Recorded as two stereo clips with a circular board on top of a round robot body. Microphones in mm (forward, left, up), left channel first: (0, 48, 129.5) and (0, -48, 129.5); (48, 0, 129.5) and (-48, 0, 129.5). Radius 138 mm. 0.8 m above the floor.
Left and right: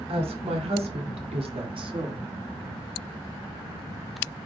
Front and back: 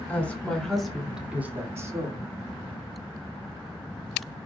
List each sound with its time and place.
0.1 s a woman speaking: 75° right, 3 m; by 2.3 s 135° right, 2.5 m